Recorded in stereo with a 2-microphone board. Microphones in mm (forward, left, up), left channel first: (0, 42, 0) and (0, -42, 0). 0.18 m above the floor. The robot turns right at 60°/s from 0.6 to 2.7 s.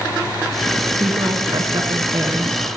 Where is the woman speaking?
125° right, 2 m; by 2.6 s 30° right, 2 m.